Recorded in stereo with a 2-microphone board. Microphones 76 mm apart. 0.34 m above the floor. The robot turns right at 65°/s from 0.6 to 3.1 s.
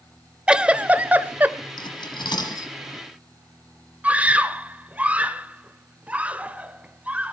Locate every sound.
0.5 s a giggle: 15° right (ahead or behind), 0.8 m; by 1.6 s 25° right (ahead or behind), 0.8 m
1.8 s cutlery clinking: 70° left (ahead or behind), 4.5 m; by 2.7 s 45° left (ahead or behind), 4.5 m
4.0 s a scream: 20° right (ahead or behind), 1.1 m